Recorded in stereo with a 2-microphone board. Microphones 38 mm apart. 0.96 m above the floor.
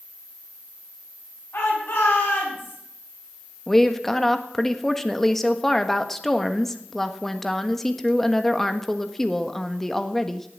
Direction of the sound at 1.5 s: 65° left (ahead or behind).